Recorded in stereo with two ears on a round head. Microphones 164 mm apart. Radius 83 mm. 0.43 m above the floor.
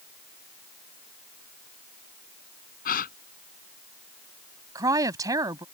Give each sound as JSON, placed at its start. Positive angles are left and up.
{"t": 2.9, "sound": "a gasp", "side_deg": 55}
{"t": 4.8, "sound": "a woman speaking", "side_deg": -20}